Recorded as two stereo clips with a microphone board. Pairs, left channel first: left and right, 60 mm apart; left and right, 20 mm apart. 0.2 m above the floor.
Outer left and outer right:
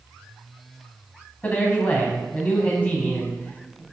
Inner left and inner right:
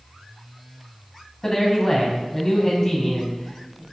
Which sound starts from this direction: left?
A man speaking, at 1.4 s.